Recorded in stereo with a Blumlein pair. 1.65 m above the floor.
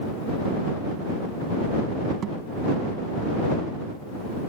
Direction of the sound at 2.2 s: 25° right.